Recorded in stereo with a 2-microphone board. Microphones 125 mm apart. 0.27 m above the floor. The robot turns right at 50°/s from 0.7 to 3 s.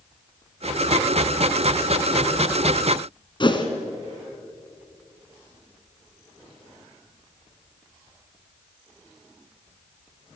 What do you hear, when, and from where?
3.4 s a whoosh: 40° left (ahead or behind), 1.7 m